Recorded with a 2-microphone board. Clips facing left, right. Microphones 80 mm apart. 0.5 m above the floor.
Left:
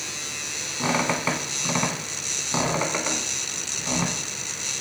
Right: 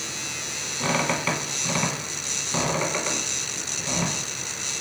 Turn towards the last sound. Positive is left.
turn(degrees=15)  # may be behind; listen again after turning